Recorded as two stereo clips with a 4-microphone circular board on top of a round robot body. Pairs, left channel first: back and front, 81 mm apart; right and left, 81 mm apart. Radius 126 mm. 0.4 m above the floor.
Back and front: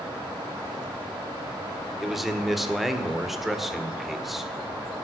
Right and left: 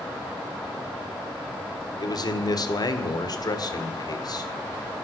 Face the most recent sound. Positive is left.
turn(degrees=-85)